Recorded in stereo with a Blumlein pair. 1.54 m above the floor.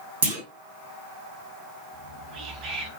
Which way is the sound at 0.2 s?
60° right.